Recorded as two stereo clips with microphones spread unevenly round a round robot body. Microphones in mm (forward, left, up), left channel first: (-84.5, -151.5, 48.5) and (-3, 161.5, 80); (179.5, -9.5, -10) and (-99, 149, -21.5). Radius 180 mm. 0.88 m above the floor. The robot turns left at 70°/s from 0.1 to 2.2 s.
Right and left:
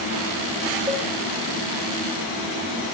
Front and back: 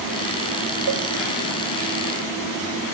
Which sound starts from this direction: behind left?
A cowbell, at 0.9 s.